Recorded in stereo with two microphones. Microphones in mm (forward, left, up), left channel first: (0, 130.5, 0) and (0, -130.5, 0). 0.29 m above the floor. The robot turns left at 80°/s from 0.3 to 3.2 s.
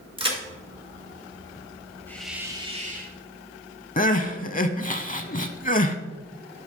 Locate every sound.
0.2 s a crack: 20° right (ahead or behind), 2 m; by 0.4 s 15° right (ahead or behind), 2 m
2.1 s a hiss: 15° left, 1.2 m; by 3.2 s 75° right, 1.2 m
4.0 s crying: 30° left (ahead or behind), 0.6 m